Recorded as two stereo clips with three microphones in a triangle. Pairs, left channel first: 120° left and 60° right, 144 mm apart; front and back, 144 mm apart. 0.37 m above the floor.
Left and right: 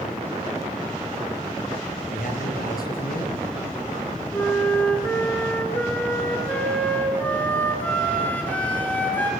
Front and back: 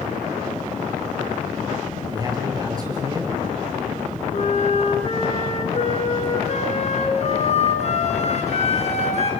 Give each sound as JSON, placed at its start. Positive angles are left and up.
{"t": 2.1, "sound": "a man speaking", "azimuth_deg": 115, "distance_m": 6.0}
{"t": 4.3, "sound": "a flute", "azimuth_deg": 40, "distance_m": 3.5}